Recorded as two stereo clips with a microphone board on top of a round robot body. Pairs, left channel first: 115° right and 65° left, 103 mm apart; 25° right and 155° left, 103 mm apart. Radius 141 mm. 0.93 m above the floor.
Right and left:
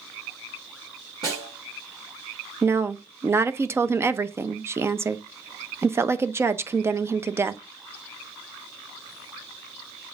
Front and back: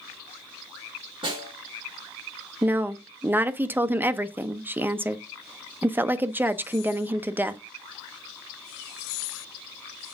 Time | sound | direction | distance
1.2 | a snare drum | 115° left | 3.5 m
2.6 | a woman speaking | 105° left | 0.7 m